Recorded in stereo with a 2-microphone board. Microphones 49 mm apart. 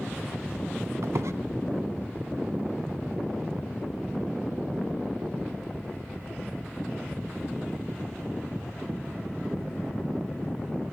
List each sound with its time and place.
1.0 s a squeak: 80° right, 0.6 m